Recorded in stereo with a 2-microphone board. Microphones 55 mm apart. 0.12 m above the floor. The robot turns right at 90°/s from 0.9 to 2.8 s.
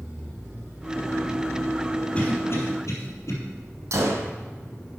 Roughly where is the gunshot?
Right.